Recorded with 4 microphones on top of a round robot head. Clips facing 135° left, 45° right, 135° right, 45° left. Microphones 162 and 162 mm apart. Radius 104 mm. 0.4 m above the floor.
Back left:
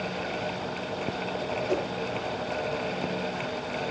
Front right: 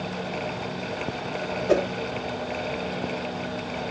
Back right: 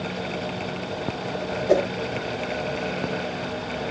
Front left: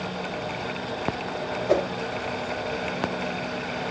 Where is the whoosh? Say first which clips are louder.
Front right 8 dB, back right 3 dB; 70° right, 1.0 m.